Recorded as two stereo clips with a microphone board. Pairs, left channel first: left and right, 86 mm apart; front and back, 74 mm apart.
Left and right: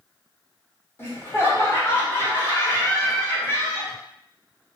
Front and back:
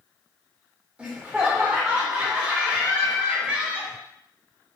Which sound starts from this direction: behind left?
Laughter, at 1.0 s.